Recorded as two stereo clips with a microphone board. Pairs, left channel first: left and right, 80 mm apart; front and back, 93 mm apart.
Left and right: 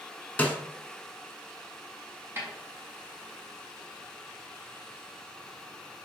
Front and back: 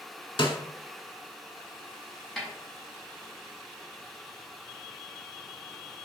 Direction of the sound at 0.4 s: 20° left.